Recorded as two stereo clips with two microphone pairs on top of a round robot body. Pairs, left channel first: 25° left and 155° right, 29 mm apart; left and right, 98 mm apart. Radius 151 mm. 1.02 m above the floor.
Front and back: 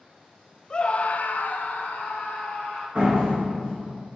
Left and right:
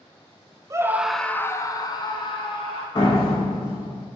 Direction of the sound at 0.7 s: 45° right.